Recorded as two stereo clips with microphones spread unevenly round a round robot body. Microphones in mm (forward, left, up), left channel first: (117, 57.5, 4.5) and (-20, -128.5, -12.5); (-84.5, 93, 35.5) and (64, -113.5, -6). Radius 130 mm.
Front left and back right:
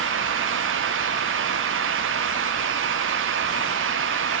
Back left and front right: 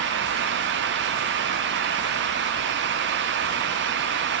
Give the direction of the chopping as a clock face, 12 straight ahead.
I don't hear chopping.